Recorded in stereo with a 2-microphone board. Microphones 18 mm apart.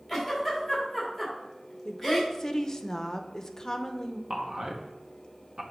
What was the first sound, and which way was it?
A giggle, 5° left (ahead or behind).